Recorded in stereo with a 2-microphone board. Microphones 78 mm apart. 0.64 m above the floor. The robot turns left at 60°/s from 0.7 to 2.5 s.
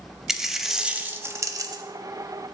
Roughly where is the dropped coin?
Ahead.